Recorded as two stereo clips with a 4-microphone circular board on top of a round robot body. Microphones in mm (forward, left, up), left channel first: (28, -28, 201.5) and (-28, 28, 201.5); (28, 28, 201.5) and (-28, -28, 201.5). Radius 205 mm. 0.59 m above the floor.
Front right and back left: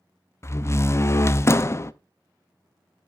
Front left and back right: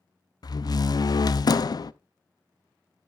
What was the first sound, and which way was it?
A door slam, 10° left.